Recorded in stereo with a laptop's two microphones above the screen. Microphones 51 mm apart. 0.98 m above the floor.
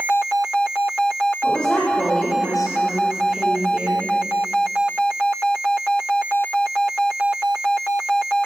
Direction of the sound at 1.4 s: 25° left (ahead or behind).